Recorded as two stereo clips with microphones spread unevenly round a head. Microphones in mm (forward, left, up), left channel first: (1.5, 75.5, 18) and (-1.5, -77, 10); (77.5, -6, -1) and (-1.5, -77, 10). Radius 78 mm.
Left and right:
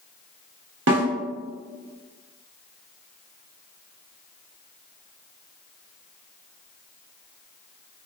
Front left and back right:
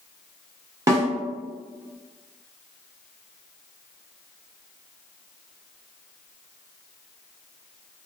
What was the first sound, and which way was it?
A snare drum, 85° right.